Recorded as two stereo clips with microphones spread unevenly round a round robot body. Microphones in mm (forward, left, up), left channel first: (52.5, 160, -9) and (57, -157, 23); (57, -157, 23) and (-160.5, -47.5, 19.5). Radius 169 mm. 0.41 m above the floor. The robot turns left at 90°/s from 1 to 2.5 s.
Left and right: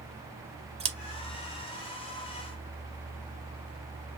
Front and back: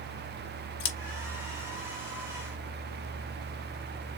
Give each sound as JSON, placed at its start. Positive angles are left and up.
{"t": 0.8, "sound": "scissors", "azimuth_deg": -15, "distance_m": 1.1}